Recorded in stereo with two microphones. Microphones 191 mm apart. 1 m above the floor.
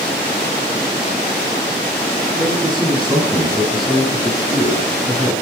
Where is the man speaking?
25° right (ahead or behind), 9.5 m; by 5.3 s 20° right (ahead or behind), 11.5 m.